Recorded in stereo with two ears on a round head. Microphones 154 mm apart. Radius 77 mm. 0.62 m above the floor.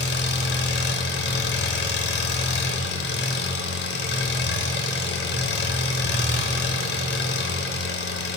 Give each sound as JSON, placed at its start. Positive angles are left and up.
{"t": 0.0, "sound": "an engine running", "side_deg": 70, "distance_m": 0.7}